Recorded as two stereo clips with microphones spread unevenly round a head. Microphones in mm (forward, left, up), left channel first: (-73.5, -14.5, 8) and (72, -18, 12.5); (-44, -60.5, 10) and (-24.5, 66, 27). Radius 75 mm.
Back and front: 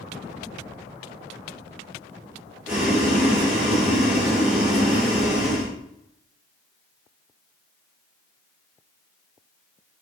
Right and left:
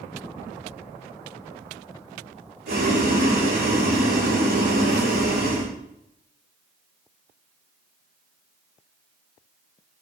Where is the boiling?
80° left, 4.5 m.